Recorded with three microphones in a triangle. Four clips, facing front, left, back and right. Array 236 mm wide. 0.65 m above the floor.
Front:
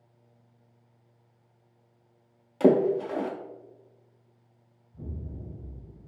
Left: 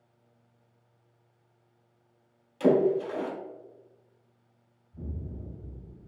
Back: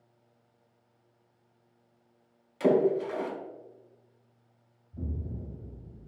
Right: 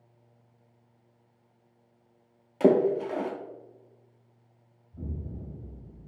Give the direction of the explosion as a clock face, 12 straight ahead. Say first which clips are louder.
Right 1 dB, back 2 dB; 6 o'clock.